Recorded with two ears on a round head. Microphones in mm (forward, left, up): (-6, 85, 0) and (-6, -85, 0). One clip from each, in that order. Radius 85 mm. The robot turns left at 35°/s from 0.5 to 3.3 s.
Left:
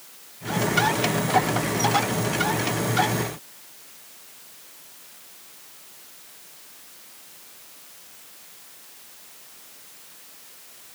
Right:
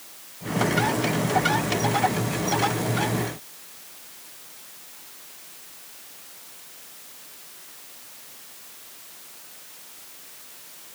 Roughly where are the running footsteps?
No running footsteps in this recording.